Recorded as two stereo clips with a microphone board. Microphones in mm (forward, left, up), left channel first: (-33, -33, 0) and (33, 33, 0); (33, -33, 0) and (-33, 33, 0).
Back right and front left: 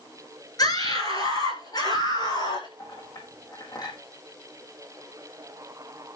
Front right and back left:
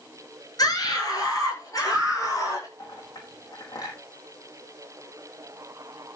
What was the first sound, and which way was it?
A scream, 90° right.